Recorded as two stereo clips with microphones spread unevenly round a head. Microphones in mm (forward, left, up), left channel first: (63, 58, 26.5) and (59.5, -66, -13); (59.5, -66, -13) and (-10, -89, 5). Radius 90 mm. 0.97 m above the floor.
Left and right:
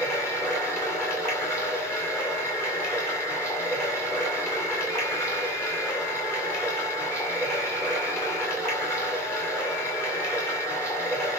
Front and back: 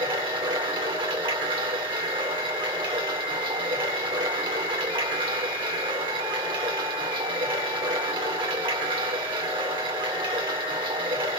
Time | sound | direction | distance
0.0 | running water | 165° left | 2 m